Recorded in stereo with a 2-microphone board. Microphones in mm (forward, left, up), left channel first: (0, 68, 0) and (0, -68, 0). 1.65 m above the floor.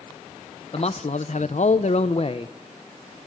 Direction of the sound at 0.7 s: 50° left (ahead or behind).